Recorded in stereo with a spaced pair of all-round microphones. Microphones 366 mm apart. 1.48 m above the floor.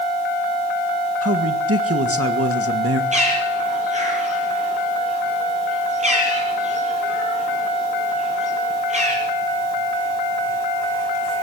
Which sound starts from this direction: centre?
A bird, at 3.1 s.